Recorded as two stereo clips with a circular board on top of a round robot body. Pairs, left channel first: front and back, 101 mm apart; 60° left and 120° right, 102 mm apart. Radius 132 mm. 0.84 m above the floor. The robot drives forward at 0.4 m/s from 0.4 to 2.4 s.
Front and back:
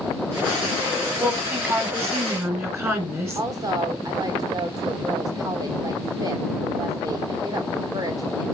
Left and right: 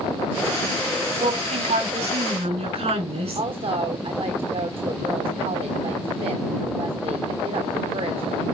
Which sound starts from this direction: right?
A woman speaking, at 1.1 s.